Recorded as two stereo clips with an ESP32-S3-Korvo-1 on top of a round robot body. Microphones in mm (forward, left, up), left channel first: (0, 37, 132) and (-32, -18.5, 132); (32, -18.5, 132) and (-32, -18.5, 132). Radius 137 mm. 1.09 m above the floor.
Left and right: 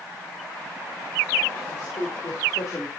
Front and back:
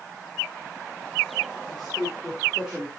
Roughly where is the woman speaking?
Left.